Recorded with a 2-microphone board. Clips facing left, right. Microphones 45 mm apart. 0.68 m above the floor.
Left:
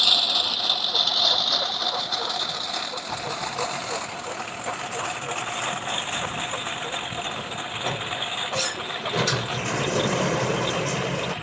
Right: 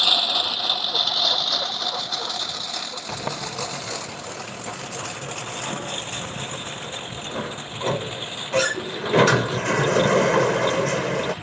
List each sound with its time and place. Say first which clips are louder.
0.0 s a lawn mower: right 1 dB; 15° right (ahead or behind); by 11.4 s 40° left (ahead or behind)
3.1 s a sliding door: right 1 dB; 45° right (ahead or behind)